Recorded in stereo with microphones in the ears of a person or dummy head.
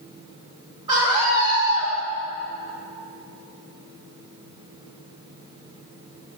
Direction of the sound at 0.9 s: 25° right (ahead or behind).